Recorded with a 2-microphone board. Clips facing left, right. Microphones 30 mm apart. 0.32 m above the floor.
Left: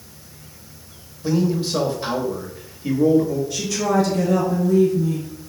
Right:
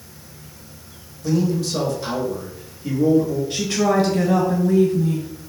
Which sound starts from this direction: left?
A man speaking, at 1.2 s.